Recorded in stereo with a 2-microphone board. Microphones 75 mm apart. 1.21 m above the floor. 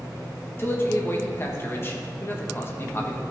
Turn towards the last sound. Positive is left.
turn(degrees=35)  # may be behind; listen again after turning